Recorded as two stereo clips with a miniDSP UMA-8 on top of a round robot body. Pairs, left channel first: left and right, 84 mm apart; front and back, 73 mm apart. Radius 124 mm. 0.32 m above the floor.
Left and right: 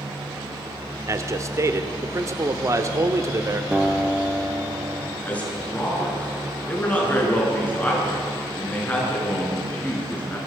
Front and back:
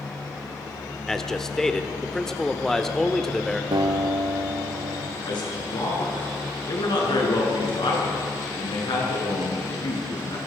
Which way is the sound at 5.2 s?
15° left.